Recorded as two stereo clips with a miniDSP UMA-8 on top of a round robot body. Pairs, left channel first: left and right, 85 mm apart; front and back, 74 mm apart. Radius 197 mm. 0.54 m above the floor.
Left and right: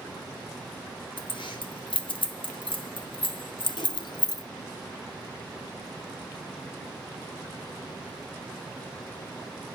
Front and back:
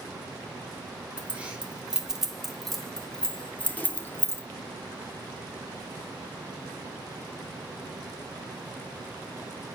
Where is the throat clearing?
I don't hear throat clearing.